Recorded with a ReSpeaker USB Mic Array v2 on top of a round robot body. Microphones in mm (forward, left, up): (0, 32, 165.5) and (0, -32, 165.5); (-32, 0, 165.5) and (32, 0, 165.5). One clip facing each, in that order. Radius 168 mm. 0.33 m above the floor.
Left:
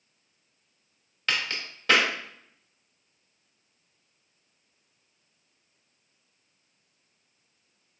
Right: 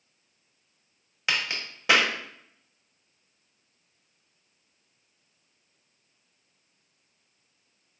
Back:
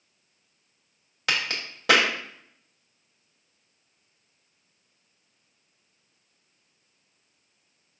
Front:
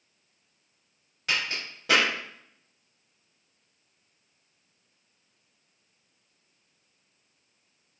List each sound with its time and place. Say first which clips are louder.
1.3 s a crack: right 1 dB, back 2 dB; 165° right, 0.8 m